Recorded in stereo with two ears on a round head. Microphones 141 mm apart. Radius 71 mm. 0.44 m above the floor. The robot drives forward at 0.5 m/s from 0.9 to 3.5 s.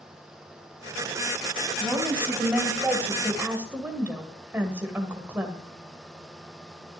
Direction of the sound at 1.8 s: 10° right (ahead or behind).